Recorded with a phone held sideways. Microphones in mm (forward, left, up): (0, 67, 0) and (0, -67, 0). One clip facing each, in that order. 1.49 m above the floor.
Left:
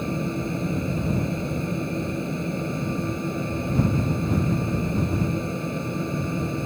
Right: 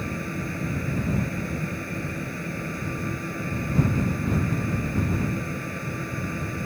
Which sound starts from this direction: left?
A fan, at 0.0 s.